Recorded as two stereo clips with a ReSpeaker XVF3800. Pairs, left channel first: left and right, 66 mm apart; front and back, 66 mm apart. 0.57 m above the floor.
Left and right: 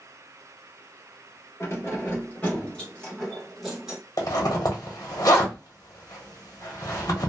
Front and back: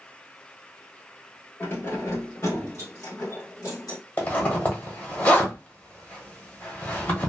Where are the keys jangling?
50° left, 1.5 m; by 4.0 s 5° right, 1.5 m.